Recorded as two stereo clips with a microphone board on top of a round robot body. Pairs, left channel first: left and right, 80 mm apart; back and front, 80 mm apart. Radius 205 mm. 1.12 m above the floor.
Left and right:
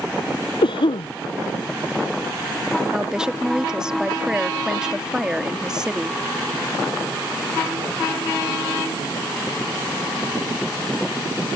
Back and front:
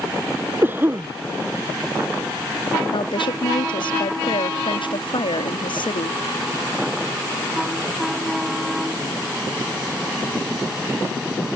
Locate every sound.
0.6 s a cough: 65° left
2.9 s a woman speaking: 170° right